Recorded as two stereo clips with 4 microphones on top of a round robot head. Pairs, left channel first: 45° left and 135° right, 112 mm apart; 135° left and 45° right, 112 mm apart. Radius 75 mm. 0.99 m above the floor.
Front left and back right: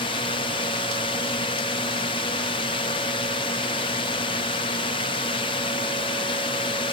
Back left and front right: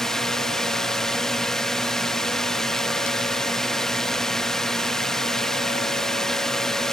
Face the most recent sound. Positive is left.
turn(degrees=55)